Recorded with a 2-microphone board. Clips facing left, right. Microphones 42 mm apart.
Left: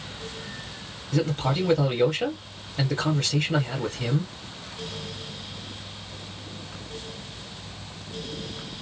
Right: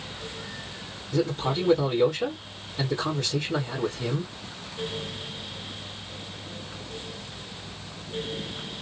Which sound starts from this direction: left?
A man speaking, at 1.1 s.